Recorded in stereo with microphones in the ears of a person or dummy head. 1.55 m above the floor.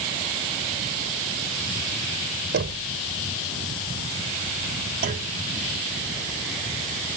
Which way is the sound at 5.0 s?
45° right (ahead or behind).